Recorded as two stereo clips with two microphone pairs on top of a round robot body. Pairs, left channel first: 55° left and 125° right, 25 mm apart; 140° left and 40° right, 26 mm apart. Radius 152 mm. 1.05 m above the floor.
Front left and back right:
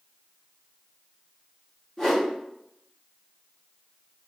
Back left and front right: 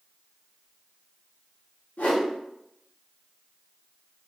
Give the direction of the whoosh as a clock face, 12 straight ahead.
8 o'clock.